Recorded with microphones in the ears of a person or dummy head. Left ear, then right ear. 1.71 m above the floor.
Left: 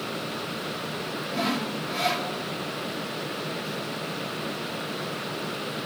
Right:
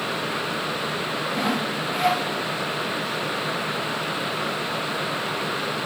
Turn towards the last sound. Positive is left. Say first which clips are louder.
# right 1 dB
turn(degrees=-10)  # may be behind; listen again after turning